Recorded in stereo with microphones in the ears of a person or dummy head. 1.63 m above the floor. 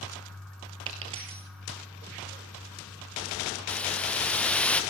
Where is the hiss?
10° left (ahead or behind), 0.9 m.